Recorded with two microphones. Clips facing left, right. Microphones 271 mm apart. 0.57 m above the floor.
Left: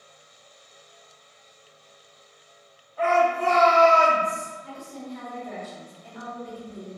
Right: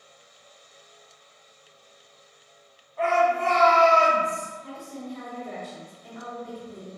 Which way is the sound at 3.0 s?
5° left (ahead or behind).